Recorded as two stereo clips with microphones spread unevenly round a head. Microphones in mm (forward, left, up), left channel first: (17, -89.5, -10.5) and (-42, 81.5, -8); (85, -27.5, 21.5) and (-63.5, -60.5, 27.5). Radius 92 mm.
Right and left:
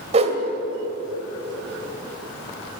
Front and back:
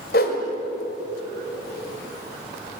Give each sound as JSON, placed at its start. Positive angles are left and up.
{"t": 0.1, "sound": "a whoosh", "azimuth_deg": 55, "distance_m": 1.9}